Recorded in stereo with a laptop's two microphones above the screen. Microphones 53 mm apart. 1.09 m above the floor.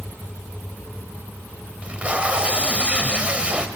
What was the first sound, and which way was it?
Tape being pulled, 20° right (ahead or behind).